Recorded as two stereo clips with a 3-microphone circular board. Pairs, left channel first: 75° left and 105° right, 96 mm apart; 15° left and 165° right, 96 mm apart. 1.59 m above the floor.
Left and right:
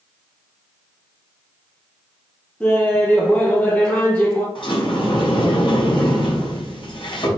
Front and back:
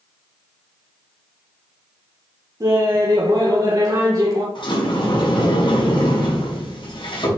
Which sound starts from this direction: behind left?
Laughter, at 2.6 s.